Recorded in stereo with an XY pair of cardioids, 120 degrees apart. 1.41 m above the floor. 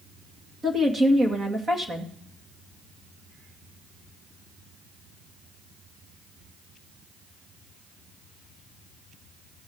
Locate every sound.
0.6 s a woman speaking: 20° right, 2 m